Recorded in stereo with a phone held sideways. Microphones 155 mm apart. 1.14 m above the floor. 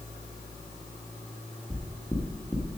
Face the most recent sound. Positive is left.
turn(degrees=5)  # may be behind; listen again after turning